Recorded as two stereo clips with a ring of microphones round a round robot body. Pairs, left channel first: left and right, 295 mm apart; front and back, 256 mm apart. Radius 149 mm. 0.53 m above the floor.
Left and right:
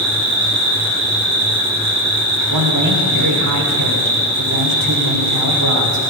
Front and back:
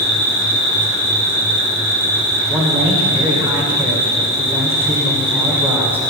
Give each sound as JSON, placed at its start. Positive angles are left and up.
{"t": 0.0, "sound": "an insect", "azimuth_deg": -55, "distance_m": 5.0}
{"t": 2.5, "sound": "a man speaking", "azimuth_deg": -100, "distance_m": 1.7}